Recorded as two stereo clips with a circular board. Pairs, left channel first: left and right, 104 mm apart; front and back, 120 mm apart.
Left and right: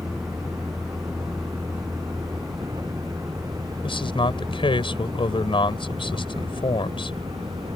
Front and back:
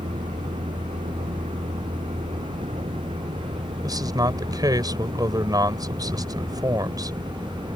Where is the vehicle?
160° right; by 7.8 s 130° right.